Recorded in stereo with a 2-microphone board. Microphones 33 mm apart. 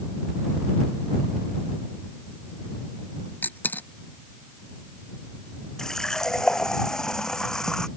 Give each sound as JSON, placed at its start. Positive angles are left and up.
{"t": 3.4, "sound": "a dropped coin", "side_deg": 70}
{"t": 5.8, "sound": "a running tap", "side_deg": 20}